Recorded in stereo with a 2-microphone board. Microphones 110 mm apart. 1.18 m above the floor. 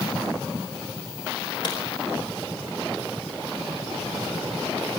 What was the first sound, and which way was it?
A crack, 45° left (ahead or behind).